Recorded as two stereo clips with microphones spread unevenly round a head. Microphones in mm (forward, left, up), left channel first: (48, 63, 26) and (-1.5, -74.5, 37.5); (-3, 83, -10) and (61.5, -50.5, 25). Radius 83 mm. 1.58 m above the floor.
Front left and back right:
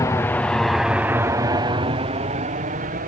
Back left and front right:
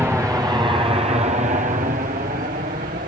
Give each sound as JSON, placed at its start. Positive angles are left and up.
{"t": 0.0, "sound": "an aircraft", "azimuth_deg": 20}